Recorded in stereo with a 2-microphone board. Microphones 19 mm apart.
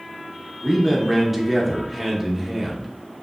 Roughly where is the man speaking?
Centre.